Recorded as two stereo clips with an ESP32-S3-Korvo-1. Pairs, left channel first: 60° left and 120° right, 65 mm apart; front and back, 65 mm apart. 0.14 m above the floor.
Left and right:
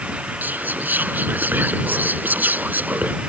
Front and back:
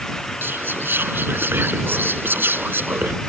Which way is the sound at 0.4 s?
160° right.